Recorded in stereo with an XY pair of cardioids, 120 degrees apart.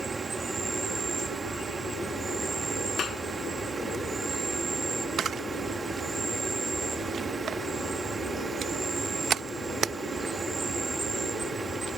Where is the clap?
40° left.